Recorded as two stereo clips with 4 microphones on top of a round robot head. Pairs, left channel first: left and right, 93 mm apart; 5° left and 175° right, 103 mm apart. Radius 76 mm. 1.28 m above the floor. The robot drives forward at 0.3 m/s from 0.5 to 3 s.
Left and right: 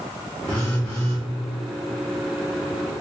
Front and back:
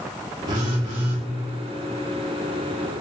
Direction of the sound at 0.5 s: 165° left.